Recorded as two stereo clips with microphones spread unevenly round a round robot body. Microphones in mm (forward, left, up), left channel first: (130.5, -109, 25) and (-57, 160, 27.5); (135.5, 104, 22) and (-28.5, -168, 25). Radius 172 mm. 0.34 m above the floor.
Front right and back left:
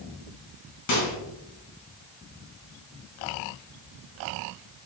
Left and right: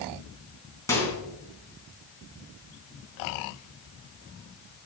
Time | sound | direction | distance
0.9 | a microwave | 20° right | 3.5 m